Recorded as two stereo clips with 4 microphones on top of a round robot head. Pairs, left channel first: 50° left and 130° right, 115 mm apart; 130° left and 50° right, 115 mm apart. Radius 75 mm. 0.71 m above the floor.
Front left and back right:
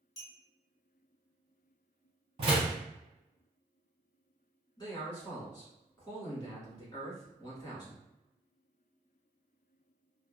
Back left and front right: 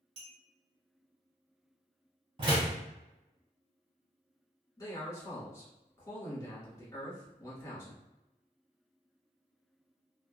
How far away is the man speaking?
About 1.5 m.